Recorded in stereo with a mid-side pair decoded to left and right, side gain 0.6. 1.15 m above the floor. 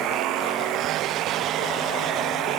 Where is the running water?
65° right.